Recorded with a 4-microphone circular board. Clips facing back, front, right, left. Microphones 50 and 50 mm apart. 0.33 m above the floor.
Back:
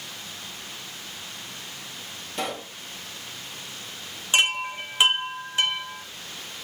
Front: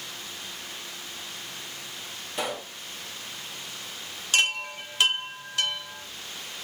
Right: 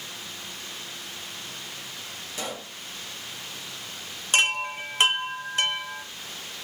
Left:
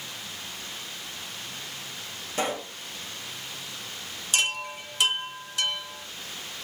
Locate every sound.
2.4 s a pop: 85° left, 1.5 m
4.3 s a chime: 120° right, 0.9 m